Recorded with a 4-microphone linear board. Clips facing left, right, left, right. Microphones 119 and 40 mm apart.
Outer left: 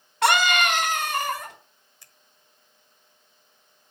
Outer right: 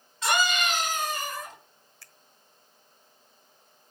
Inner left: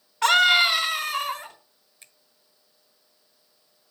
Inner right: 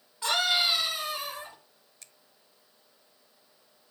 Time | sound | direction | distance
0.2 | a scream | 70° left (ahead or behind) | 4 m
2.0 | a finger snap | 20° left (ahead or behind) | 1.1 m